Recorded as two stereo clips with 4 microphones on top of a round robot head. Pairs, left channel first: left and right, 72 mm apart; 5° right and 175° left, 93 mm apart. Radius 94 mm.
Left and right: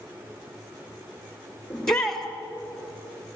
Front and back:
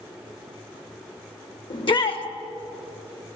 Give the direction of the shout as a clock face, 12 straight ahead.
12 o'clock.